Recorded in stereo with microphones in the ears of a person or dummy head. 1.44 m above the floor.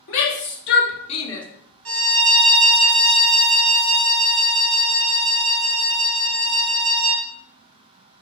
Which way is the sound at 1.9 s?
70° right (ahead or behind).